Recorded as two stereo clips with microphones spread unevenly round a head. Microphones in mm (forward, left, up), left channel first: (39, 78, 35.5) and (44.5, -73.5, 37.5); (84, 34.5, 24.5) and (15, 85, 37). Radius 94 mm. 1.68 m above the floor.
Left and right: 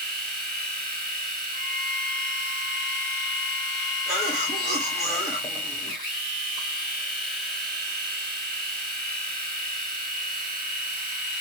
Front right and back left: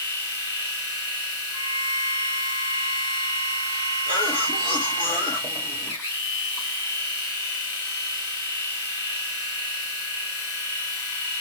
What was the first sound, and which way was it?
A machine running, 140° right.